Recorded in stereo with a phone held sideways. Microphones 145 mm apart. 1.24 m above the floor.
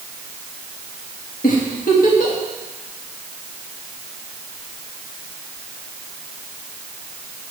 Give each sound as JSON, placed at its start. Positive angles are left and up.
{"t": 1.4, "sound": "a giggle", "side_deg": 75, "distance_m": 1.4}